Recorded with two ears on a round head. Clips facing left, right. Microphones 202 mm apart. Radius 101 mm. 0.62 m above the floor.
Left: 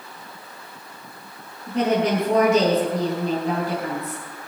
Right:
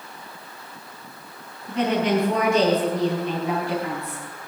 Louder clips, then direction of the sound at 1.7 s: Left 1 dB; 35° left (ahead or behind).